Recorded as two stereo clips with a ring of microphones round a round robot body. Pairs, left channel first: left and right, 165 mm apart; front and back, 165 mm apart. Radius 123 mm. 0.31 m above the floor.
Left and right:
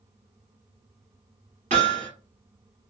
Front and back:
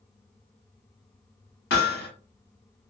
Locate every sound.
1.7 s hammering: 30° right, 1.6 m